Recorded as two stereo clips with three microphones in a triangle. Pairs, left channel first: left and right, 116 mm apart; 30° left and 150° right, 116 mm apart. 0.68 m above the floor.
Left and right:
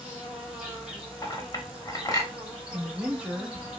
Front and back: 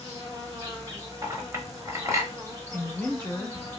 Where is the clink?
145° left, 0.7 m.